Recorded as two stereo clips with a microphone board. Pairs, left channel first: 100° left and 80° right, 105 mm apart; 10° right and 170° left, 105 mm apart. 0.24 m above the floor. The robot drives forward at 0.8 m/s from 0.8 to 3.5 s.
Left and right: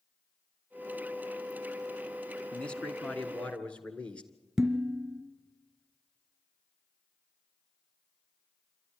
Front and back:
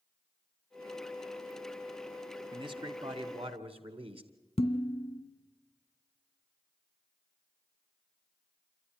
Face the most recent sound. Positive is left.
turn(degrees=5)